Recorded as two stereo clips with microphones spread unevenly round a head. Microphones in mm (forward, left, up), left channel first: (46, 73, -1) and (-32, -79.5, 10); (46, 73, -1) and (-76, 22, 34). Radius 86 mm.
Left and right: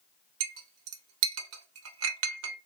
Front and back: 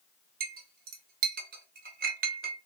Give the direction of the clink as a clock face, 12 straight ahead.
4 o'clock.